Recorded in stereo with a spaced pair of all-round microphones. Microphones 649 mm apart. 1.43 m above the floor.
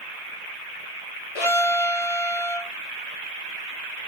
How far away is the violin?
About 2 m.